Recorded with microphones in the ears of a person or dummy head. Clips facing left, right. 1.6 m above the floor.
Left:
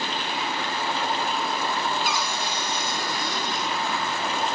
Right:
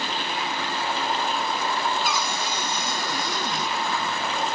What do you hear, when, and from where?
2.0 s a cupboard door: 70° right (ahead or behind), 3 m